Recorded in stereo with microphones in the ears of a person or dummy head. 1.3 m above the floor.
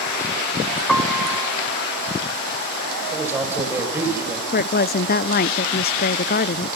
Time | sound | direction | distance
0.9 | a piano | 5° left (ahead or behind) | 1.2 m
3.1 | a man speaking | 15° right (ahead or behind) | 6 m
4.5 | a woman speaking | 50° left (ahead or behind) | 0.5 m